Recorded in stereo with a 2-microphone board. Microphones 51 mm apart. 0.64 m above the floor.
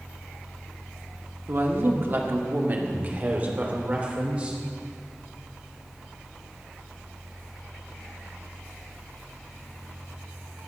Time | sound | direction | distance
1.5 | a woman speaking | 50° right (ahead or behind) | 1.2 m